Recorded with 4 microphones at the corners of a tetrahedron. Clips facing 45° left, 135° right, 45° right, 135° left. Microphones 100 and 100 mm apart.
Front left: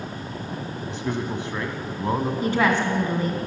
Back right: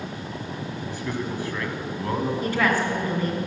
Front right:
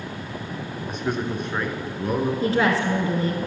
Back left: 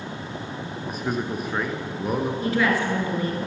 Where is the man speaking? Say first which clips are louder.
Front left 3 dB, front right 1 dB; 55° left, 1.3 m.